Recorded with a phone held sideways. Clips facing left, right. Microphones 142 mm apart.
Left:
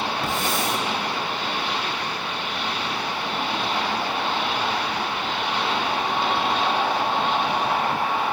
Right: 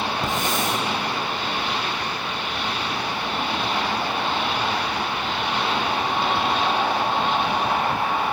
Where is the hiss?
20° right (ahead or behind), 7 m.